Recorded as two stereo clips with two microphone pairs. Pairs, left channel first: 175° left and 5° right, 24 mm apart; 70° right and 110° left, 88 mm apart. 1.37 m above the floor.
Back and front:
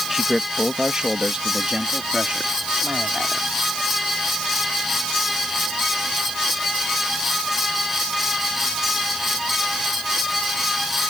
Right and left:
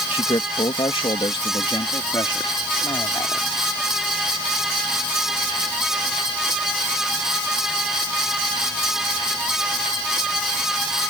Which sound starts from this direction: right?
A man speaking, at 0.1 s.